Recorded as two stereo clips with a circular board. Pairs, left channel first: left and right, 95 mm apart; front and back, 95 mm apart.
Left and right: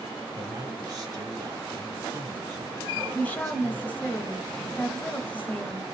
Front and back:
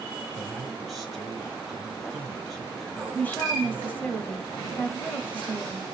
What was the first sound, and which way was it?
A man speaking, 90° right.